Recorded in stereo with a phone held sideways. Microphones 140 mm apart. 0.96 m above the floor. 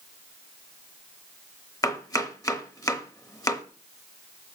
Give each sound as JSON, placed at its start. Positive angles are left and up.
{"t": 1.8, "sound": "chopping", "side_deg": 25, "distance_m": 0.8}